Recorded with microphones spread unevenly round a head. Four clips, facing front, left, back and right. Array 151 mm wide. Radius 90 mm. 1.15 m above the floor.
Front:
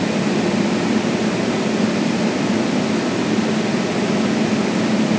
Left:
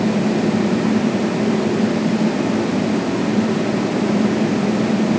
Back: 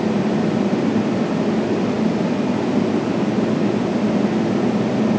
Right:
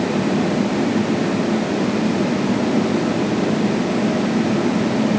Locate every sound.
Only background noise.